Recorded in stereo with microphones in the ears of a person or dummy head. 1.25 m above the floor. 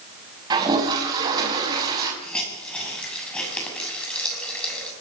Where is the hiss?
5° left (ahead or behind), 7 m.